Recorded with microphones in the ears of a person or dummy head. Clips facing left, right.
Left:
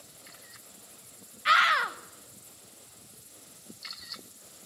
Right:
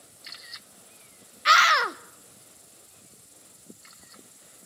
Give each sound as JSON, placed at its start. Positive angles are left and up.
{"t": 1.4, "sound": "a scream", "side_deg": -55, "distance_m": 0.9}